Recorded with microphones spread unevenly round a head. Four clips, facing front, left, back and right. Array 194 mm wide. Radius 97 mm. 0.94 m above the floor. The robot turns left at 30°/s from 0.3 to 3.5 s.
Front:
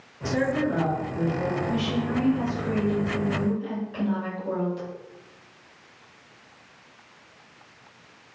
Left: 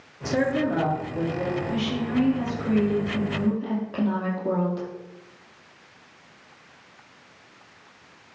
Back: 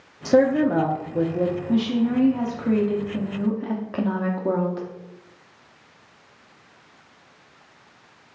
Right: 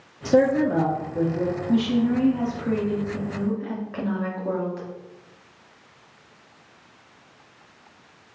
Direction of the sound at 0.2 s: 150° right.